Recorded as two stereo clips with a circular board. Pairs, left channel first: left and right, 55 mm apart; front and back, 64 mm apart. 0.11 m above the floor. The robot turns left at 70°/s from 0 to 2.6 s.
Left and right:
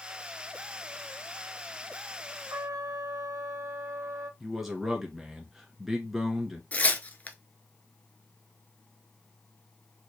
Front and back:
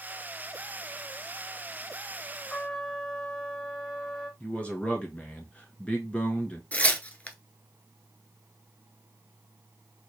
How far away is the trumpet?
About 2 m.